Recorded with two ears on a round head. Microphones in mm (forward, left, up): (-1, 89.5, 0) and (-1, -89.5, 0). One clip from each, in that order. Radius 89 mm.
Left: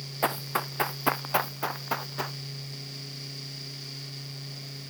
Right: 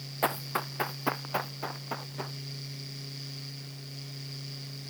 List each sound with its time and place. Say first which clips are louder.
0.2 s running footsteps: left 2 dB; centre (ahead or behind); by 2.4 s 45° left (ahead or behind)